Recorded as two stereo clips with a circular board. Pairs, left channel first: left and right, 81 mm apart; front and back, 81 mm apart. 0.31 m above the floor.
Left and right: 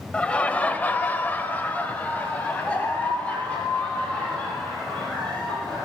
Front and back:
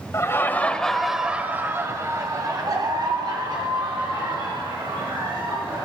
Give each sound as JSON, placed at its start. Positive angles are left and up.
{"t": 0.1, "sound": "laughter", "azimuth_deg": 20, "distance_m": 1.3}